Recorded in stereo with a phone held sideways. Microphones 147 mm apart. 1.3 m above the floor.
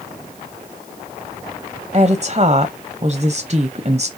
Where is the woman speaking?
40° right (ahead or behind), 0.5 m.